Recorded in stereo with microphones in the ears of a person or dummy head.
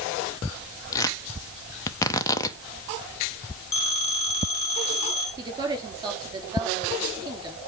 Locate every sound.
0.9 s tearing paper: 20° left (ahead or behind), 0.8 m
3.7 s a phone ringing: 20° left (ahead or behind), 3.5 m
5.4 s a woman speaking: 20° right (ahead or behind), 3.5 m